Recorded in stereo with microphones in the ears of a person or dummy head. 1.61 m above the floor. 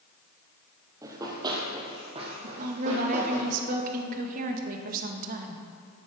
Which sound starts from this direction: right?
A woman speaking, at 2.4 s.